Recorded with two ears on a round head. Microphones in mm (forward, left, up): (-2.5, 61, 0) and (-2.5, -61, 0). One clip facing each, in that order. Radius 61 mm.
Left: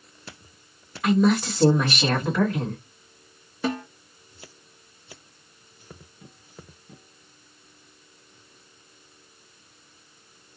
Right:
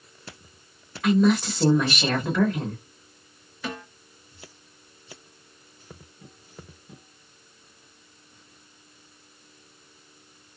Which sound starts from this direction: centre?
A woman speaking, at 1.0 s.